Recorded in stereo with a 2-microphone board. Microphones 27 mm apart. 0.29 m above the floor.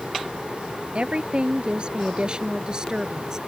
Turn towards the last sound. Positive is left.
turn(degrees=-30)  # may be behind; listen again after turning